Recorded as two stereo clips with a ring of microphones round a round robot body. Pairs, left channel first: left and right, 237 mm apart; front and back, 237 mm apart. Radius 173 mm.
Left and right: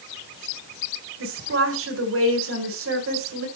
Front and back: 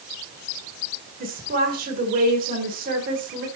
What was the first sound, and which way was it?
A woman speaking, 125° right.